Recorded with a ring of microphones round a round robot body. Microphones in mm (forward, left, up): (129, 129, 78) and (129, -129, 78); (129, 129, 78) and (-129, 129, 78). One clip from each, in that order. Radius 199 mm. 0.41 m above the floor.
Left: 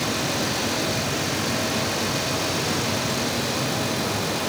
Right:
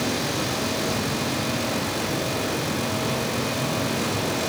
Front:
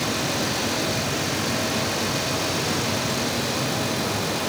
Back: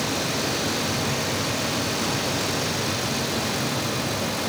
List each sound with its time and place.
Only background noise.